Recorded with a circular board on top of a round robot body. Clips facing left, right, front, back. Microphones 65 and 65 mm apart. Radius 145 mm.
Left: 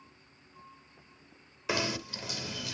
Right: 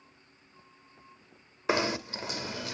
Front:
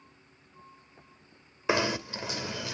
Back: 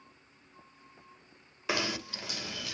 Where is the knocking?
60° right, 1.3 m.